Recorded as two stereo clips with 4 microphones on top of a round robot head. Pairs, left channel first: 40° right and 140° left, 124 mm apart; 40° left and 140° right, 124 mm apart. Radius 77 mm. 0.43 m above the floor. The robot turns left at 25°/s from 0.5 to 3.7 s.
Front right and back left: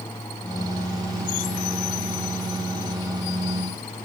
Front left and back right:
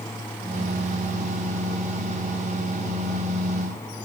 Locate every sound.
Only background noise.